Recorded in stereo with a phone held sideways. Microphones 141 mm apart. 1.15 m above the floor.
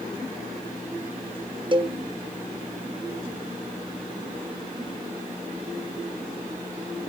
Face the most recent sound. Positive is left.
turn(degrees=-35)  # may be behind; listen again after turning